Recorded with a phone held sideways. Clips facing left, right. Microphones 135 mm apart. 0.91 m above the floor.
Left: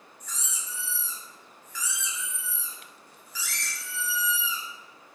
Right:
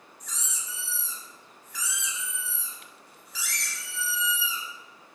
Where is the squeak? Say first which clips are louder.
Even; 75° right (ahead or behind), 0.7 m.